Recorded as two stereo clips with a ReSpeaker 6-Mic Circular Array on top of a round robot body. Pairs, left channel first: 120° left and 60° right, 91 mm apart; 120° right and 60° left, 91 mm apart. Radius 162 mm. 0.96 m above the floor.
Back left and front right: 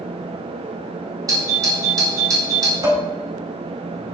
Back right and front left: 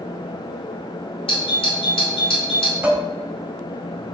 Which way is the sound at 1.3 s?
110° right.